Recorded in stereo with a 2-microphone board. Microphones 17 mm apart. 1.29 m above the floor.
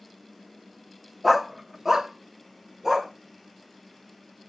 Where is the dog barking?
10° right (ahead or behind), 0.9 m; by 3.1 s 30° right (ahead or behind), 2 m.